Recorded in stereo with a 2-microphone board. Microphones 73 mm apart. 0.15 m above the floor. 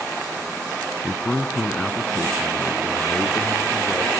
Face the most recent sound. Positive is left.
turn(degrees=10)  # may be behind; listen again after turning